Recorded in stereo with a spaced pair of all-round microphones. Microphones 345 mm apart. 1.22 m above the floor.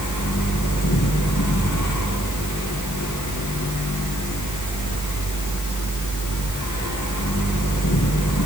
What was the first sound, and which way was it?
A fan, 55° left (ahead or behind).